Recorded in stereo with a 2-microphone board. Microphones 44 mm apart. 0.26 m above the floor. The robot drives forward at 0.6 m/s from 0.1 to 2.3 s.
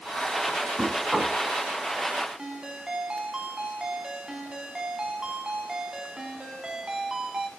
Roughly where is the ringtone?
Centre.